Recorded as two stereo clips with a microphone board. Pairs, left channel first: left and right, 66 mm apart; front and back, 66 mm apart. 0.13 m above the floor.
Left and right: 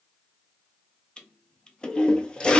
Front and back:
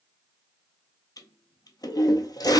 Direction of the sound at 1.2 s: 15° left.